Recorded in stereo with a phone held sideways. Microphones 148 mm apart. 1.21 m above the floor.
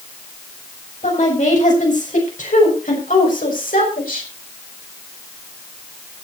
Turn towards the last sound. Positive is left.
turn(degrees=85)